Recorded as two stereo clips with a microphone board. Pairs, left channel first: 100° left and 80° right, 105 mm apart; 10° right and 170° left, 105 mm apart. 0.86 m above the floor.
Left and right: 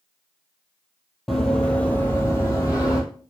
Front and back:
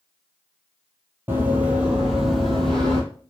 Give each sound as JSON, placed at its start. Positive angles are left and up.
{"t": 1.3, "sound": "running footsteps", "azimuth_deg": -175, "distance_m": 0.9}